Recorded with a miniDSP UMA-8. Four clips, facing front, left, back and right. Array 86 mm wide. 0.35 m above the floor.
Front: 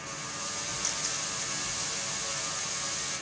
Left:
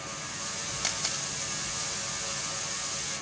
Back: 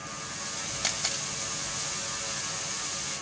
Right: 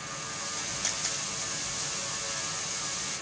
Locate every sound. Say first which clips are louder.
0.8 s a camera shutter: left 1 dB, back 2 dB; 155° left, 2 m